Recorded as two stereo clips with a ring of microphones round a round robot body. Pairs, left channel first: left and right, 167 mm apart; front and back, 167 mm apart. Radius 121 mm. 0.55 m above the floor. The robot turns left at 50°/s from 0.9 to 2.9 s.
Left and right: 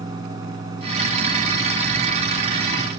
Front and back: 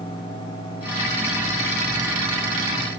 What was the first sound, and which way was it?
Only background noise.